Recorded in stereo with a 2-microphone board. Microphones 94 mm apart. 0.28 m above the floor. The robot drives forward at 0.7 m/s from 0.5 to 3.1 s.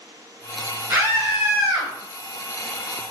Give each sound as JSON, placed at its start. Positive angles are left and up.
{"t": 0.9, "sound": "a scream", "side_deg": -25, "distance_m": 1.1}